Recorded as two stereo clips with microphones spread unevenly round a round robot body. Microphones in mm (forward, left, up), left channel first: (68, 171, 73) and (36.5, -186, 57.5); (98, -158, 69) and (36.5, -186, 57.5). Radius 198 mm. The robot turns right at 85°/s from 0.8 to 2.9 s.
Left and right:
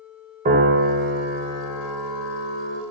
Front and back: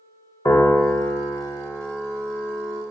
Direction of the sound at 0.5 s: 30° right.